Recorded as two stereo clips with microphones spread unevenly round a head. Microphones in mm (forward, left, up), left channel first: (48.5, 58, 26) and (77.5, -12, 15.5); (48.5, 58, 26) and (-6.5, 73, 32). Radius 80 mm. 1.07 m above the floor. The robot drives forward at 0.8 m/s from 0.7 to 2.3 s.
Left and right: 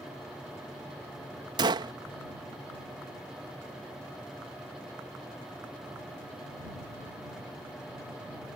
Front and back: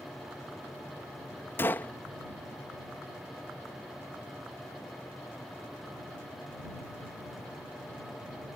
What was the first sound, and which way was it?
A gunshot, 75° right.